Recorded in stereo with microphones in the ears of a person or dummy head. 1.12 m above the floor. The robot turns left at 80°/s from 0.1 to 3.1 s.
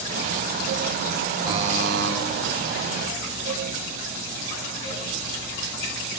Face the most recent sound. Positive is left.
turn(degrees=-155)